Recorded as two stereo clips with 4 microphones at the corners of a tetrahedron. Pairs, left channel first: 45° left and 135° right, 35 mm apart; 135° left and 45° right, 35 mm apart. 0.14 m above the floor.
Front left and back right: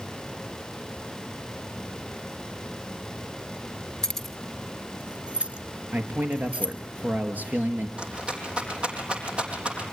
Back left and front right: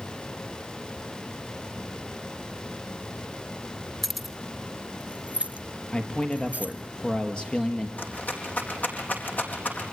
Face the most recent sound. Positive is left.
turn(degrees=165)